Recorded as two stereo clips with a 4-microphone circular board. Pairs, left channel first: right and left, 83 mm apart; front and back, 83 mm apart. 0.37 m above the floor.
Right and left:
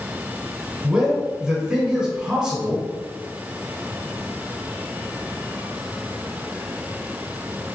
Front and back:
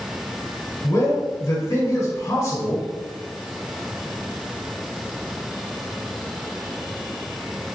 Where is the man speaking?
15° left, 1.3 m.